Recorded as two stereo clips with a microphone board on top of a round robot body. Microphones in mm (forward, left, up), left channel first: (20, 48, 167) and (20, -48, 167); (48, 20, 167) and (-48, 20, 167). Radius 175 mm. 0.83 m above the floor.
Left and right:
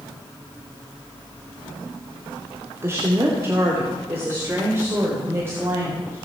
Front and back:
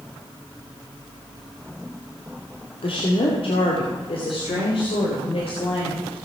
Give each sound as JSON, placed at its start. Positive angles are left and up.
{"t": 2.8, "sound": "a woman speaking", "azimuth_deg": -25, "distance_m": 2.5}